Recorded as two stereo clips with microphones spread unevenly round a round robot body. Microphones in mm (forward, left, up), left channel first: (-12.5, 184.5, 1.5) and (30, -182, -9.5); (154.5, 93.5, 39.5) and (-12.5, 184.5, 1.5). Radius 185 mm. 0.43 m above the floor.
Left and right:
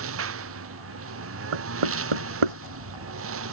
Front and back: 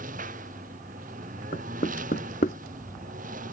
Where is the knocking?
95° right.